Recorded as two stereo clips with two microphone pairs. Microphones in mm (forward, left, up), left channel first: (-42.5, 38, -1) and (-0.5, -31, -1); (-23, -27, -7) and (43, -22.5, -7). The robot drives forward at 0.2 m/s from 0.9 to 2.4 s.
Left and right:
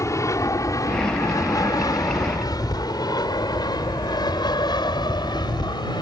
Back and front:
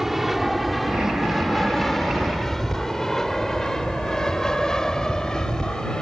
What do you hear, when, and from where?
0.0 s an aircraft: 90° left; by 6.0 s 105° left